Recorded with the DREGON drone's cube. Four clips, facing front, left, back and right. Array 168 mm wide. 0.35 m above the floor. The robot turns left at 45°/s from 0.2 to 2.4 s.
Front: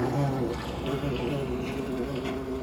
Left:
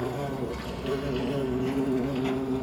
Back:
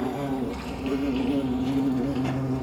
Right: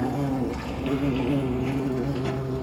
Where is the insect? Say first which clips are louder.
Right 5 dB, even; 45° right, 3 m; by 2.6 s 145° right, 3 m.